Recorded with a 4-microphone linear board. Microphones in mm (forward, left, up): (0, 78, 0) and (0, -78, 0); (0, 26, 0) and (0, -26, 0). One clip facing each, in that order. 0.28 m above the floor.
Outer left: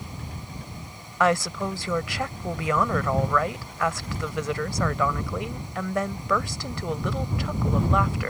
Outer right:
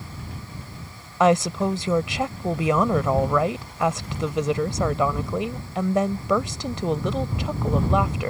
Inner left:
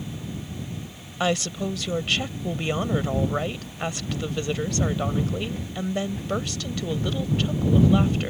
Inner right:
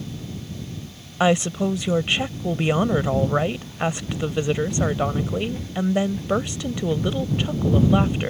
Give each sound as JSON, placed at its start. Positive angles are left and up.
{"t": 1.2, "sound": "a woman speaking", "side_deg": -20}